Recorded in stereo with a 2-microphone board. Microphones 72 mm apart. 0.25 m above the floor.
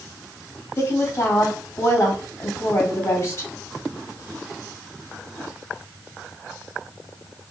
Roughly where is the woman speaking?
Left.